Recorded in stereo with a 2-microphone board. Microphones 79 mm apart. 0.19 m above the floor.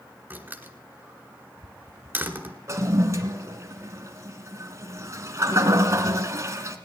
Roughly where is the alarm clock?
No alarm clock in this recording.